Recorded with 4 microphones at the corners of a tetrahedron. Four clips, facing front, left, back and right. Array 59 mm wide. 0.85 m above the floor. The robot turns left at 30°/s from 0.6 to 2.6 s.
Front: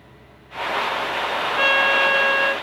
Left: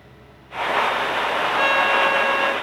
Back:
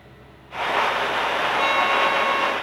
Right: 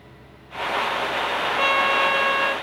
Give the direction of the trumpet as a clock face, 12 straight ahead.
11 o'clock.